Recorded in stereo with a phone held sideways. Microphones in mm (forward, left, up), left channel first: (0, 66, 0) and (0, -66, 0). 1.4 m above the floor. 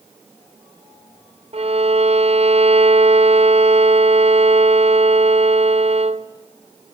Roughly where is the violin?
Right.